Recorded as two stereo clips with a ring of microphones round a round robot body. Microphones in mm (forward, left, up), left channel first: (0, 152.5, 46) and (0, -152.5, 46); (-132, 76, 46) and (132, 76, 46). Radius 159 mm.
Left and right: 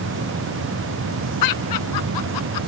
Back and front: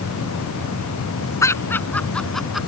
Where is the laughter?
100° left; by 2.7 s 90° left.